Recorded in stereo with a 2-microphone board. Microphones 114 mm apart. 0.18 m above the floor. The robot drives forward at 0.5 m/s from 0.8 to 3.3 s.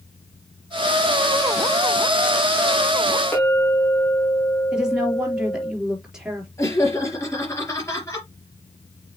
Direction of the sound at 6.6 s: 25° left (ahead or behind).